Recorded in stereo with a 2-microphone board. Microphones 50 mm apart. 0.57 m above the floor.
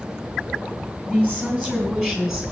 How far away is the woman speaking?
About 4.5 m.